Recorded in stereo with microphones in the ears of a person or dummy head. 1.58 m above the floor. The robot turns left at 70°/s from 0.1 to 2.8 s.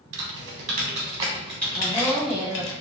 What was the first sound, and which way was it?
Typing on a keyboard, 80° right.